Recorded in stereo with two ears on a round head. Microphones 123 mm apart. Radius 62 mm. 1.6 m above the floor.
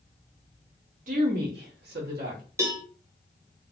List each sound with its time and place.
1.1 s a woman speaking: 60° right (ahead or behind), 1.7 m; by 2.4 s 65° right (ahead or behind), 2 m
2.6 s a cowbell: 20° right (ahead or behind), 0.9 m